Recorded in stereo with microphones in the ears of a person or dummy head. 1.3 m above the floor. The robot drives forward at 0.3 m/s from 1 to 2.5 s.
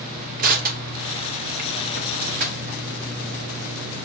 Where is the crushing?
40° right (ahead or behind), 0.7 m; by 2.8 s 35° right (ahead or behind), 0.8 m.